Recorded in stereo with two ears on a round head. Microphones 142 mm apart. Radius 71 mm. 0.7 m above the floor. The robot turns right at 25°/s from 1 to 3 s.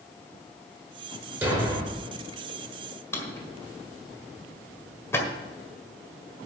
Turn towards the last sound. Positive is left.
turn(degrees=15)  # may be behind; listen again after turning